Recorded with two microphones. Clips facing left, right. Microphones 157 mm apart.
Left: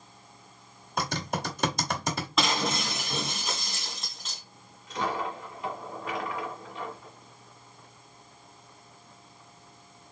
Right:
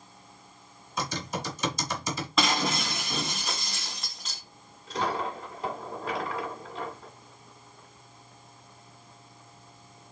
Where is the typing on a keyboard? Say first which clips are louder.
Left 2 dB; 60° left (ahead or behind), 1.4 m.